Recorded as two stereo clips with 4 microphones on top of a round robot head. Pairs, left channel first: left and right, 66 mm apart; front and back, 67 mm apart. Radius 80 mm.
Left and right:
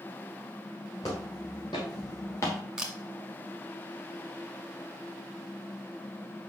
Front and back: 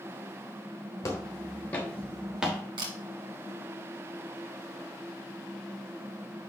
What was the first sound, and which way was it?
Footsteps, 40° left.